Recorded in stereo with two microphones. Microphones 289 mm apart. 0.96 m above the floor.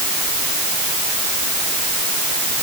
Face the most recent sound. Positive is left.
No sound to turn to.